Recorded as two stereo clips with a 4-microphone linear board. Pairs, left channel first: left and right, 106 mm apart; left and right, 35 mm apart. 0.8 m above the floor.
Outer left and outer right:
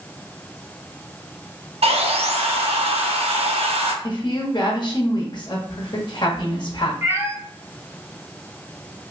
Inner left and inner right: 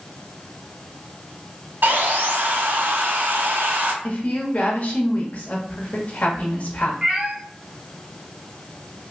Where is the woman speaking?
50° left (ahead or behind), 1.1 m.